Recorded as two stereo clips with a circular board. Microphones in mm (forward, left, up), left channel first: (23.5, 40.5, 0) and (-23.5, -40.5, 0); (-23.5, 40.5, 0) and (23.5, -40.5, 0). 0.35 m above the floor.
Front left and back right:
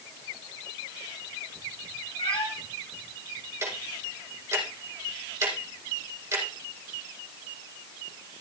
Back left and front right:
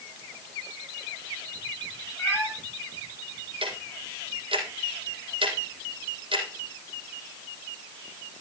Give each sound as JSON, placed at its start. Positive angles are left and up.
{"t": 2.2, "sound": "a cat meowing", "azimuth_deg": 50, "distance_m": 7.0}
{"t": 3.6, "sound": "ticking", "azimuth_deg": -60, "distance_m": 4.5}